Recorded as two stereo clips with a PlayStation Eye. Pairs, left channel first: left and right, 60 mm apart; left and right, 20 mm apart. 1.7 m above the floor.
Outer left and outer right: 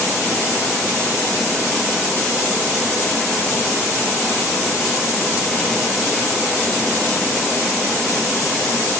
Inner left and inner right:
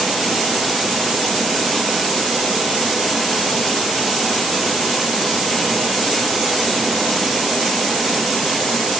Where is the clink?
I don't hear a clink.